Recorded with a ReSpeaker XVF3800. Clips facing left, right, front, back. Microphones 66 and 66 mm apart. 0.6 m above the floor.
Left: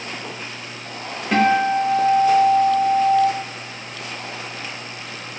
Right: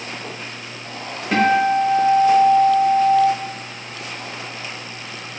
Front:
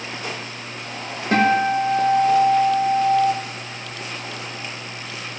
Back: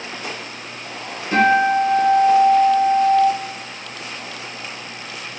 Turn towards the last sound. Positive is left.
turn(degrees=-5)